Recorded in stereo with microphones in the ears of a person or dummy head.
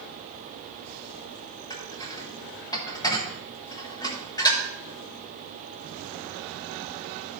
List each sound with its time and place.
1.7 s dishes clattering: 15° left (ahead or behind), 1.2 m